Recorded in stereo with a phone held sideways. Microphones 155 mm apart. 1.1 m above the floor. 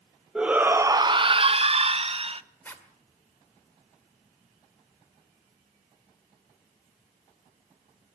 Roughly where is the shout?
Centre.